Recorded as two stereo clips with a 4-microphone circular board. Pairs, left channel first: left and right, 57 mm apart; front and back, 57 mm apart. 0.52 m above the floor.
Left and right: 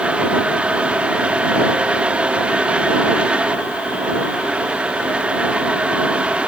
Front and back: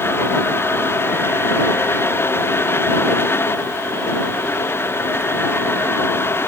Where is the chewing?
No chewing in this recording.